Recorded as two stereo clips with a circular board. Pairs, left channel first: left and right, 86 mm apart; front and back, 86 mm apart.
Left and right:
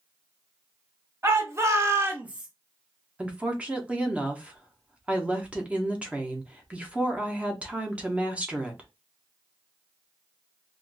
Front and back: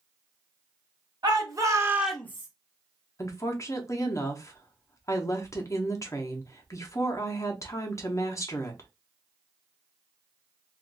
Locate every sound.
1.2 s a shout: 145° right, 1.6 m; by 2.5 s 5° right, 0.8 m
3.2 s a woman speaking: 25° right, 0.9 m